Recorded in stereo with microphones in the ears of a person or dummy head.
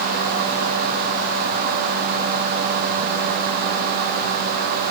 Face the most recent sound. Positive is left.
No sound to turn to.